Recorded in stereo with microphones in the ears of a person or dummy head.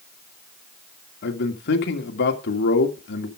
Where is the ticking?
I don't hear ticking.